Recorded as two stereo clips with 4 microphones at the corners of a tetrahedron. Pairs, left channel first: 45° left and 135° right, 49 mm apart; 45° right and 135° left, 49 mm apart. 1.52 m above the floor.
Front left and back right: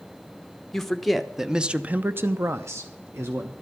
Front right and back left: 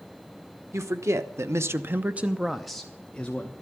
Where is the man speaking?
125° left, 1.2 m; by 3.5 s 110° right, 1.2 m.